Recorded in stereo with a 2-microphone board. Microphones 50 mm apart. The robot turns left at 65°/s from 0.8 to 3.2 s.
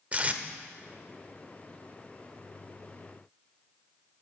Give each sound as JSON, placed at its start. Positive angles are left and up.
{"t": 0.1, "sound": "tape being pulled", "side_deg": -30, "distance_m": 0.8}